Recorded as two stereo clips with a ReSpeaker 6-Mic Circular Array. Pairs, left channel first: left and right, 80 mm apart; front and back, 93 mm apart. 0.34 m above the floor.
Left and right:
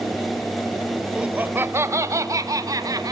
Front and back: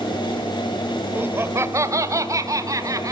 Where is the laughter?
155° right, 0.9 m; by 3.1 s 130° right, 2.5 m.